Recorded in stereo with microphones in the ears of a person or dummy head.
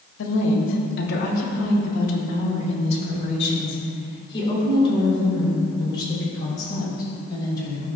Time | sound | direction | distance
0.2 | a woman speaking | 80° left | 2.5 m